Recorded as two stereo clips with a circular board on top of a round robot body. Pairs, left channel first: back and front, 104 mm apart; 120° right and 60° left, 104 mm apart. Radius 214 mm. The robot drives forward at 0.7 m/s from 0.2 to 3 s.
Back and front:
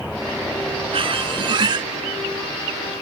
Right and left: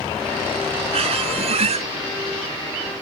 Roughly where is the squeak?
Ahead left.